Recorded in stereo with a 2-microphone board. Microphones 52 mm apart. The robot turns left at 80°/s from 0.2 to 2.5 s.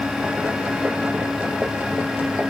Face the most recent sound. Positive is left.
No sound to turn to.